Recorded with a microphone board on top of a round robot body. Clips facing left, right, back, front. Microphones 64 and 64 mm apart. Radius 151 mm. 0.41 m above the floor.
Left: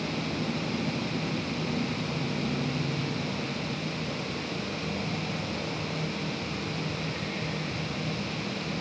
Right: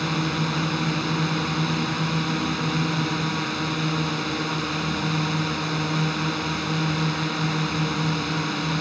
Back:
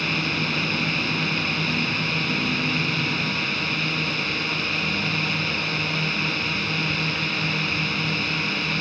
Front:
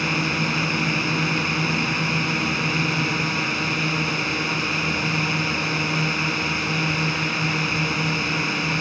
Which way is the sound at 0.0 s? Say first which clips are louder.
Right 6 dB, front 2 dB; 70° right.